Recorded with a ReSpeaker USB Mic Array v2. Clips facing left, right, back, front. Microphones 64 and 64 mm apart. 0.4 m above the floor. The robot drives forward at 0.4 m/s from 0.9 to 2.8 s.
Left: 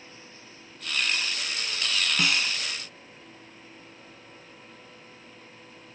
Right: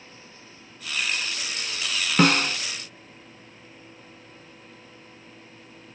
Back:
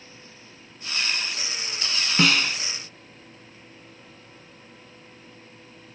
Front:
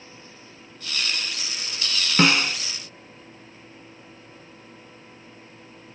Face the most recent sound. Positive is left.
turn(degrees=-85)